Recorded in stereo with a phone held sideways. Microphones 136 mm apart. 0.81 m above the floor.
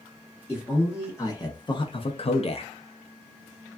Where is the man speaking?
15° left (ahead or behind), 1.0 m; by 2.7 s 45° left (ahead or behind), 0.6 m.